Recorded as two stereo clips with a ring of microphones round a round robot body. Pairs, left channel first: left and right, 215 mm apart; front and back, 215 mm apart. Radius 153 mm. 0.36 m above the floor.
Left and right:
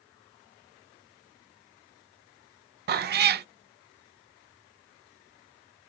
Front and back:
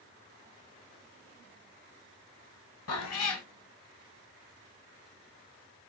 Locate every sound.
2.9 s a cat meowing: 40° right, 0.5 m